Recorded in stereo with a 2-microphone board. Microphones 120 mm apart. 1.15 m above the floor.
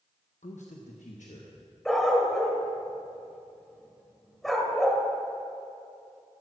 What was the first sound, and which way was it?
A man speaking, 85° left.